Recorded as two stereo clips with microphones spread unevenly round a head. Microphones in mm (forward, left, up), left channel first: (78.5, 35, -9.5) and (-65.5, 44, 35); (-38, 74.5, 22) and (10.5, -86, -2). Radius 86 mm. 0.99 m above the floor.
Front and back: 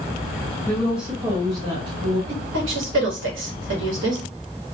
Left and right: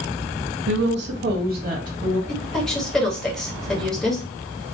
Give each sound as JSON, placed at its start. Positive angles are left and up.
{"t": 0.7, "sound": "a woman speaking", "azimuth_deg": -80, "distance_m": 0.6}
{"t": 2.3, "sound": "a woman speaking", "azimuth_deg": -165, "distance_m": 1.0}